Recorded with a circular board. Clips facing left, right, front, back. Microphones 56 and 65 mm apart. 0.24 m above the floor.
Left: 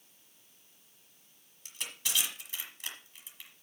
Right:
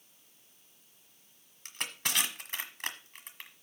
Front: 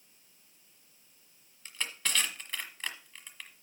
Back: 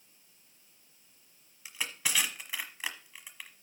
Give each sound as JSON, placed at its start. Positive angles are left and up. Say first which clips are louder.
{"t": 1.6, "sound": "crushing", "louder": "right 4 dB, even", "azimuth_deg": -100, "distance_m": 1.3}